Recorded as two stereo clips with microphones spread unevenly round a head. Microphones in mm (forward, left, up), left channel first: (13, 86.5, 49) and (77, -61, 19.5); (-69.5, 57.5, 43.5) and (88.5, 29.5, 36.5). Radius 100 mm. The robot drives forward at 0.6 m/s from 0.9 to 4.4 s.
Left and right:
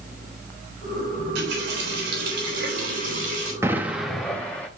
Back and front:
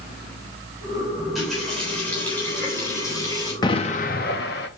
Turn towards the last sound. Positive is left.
turn(degrees=-170)